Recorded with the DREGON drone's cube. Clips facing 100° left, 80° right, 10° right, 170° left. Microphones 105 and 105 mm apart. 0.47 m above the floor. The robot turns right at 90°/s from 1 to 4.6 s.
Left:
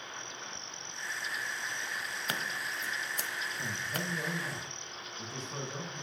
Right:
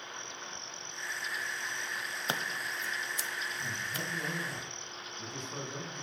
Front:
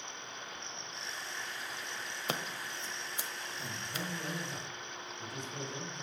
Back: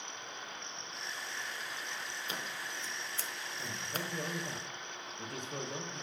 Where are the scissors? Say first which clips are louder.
Right 2 dB, front 6 dB; 20° right, 1.1 m; by 4.1 s 140° left, 1.1 m.